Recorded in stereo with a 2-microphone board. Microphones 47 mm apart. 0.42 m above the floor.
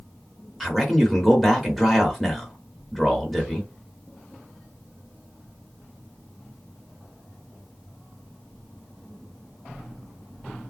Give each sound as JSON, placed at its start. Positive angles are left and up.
{"t": 0.6, "sound": "a man speaking", "side_deg": 5, "distance_m": 1.2}